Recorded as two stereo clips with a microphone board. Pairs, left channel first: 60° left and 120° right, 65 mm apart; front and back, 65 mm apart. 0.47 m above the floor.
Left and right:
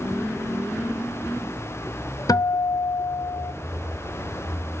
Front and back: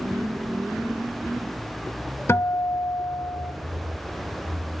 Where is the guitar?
50° left, 0.5 m.